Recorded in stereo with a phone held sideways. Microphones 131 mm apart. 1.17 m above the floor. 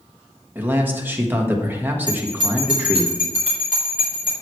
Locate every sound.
0.6 s a man speaking: 15° right (ahead or behind), 1.5 m
2.1 s a bell: 75° left (ahead or behind), 3.5 m